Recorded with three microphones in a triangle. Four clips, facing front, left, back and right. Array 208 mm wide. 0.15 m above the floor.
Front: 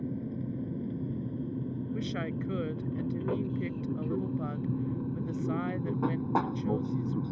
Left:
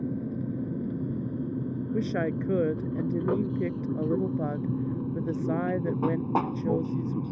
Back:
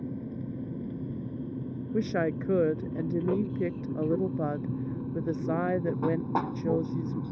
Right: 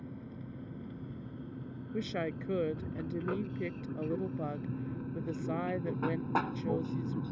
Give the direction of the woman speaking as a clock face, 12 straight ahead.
7 o'clock.